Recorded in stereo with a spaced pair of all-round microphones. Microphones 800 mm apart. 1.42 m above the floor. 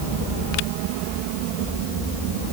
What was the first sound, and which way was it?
Only background noise.